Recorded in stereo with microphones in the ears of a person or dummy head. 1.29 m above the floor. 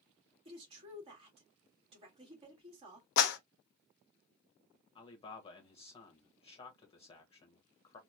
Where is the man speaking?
30° left (ahead or behind), 1.0 m.